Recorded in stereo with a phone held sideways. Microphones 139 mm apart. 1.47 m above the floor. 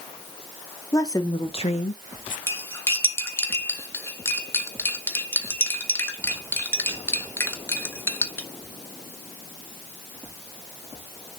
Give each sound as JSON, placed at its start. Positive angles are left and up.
{"t": 0.9, "sound": "a woman speaking", "side_deg": 20, "distance_m": 1.5}
{"t": 2.5, "sound": "cutlery clinking", "side_deg": 15, "distance_m": 1.3}